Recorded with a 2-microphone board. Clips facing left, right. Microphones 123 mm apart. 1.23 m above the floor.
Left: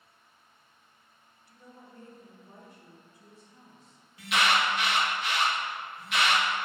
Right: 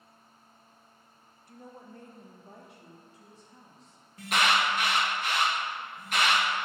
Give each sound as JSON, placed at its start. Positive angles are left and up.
{"t": 1.5, "sound": "a woman speaking", "side_deg": -50, "distance_m": 0.7}
{"t": 4.2, "sound": "an alarm", "side_deg": -45, "distance_m": 1.4}